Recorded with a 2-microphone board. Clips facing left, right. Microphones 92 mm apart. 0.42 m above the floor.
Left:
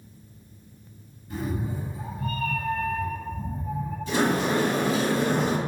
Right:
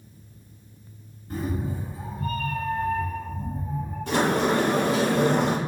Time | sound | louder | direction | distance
1.3 | a cat meowing | right 1 dB | 45° right (ahead or behind) | 1.8 m
4.1 | a sliding door | right 2 dB | 65° right (ahead or behind) | 0.8 m